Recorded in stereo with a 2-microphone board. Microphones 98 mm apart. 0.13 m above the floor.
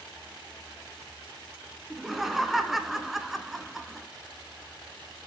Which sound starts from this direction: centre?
Laughter, at 1.9 s.